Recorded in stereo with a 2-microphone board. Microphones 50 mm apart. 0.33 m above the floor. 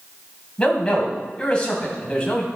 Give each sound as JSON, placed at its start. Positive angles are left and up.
{"t": 0.6, "sound": "a man speaking", "side_deg": 20, "distance_m": 2.5}